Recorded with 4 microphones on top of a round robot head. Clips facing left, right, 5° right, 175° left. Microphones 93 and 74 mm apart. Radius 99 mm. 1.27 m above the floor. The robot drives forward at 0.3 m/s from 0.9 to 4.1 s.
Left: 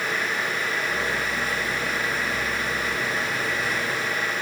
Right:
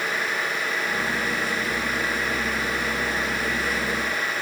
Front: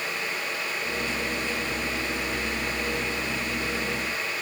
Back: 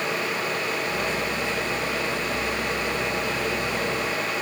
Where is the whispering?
I don't hear whispering.